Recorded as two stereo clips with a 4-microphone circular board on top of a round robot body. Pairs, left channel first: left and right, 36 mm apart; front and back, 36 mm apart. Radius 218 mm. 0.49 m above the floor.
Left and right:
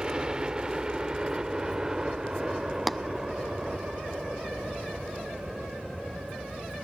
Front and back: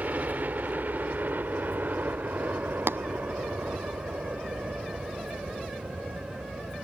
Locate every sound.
0.0 s a helicopter: 155° right; by 6.8 s 170° right
2.9 s tapping: straight behind